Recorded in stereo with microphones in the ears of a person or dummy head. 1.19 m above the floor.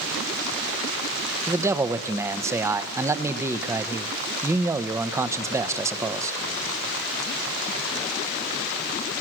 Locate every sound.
1.5 s a man speaking: 10° right (ahead or behind), 1.0 m